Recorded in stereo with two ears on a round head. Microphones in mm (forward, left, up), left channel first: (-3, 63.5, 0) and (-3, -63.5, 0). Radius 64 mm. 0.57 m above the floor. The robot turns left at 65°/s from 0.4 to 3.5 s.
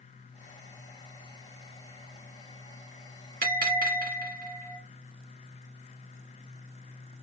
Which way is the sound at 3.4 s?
55° right (ahead or behind).